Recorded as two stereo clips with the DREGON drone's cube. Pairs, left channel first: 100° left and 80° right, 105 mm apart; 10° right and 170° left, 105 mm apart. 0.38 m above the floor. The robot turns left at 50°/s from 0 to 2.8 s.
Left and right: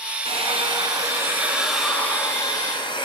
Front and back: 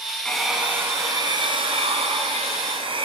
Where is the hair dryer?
95° right, 4.5 m; by 3.1 s 140° left, 4.5 m.